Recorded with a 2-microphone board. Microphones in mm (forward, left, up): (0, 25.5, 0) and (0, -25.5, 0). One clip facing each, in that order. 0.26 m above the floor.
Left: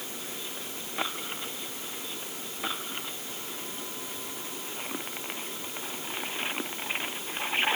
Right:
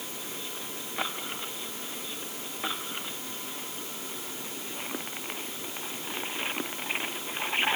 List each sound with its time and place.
Only background noise.